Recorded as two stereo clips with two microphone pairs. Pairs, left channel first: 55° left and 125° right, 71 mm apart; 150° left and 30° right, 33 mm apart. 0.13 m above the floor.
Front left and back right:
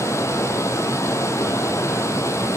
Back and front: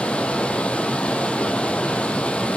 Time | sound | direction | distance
0.0 | running water | 100° left | 0.8 m